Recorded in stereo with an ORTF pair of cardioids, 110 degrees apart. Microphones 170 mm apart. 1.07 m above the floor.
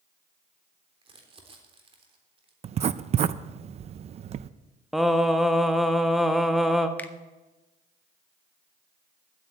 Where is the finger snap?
10° left, 1.0 m.